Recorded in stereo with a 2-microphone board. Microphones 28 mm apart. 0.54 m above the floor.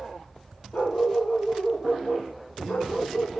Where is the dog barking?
75° left (ahead or behind), 7.5 m.